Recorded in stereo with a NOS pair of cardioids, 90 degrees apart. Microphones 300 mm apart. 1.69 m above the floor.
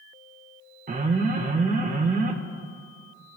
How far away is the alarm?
About 1.2 m.